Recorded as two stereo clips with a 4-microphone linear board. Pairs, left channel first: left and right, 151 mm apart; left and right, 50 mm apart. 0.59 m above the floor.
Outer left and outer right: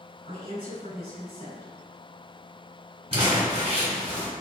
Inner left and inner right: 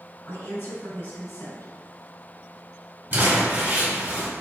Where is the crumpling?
40° right (ahead or behind), 1.9 m.